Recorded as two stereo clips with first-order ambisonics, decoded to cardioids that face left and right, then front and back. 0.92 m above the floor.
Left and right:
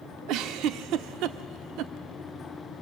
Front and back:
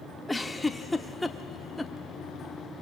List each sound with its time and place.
0.3 s a giggle: 85° right, 0.7 m